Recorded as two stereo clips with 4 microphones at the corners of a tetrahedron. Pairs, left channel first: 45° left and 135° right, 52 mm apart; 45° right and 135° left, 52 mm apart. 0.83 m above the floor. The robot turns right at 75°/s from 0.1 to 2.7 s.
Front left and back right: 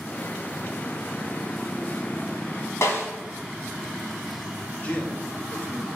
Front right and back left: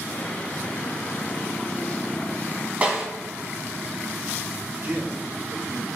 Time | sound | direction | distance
2.8 | a snare drum | 75° left | 2.5 m
4.8 | a man speaking | 100° left | 1.4 m